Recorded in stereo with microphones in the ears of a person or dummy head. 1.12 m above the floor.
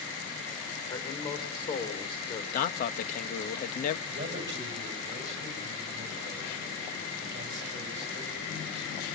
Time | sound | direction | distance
0.9 | a man speaking | 25° left (ahead or behind) | 4 m
2.5 | a man speaking | 50° left (ahead or behind) | 1.2 m
4.1 | a man speaking | 35° right (ahead or behind) | 6.5 m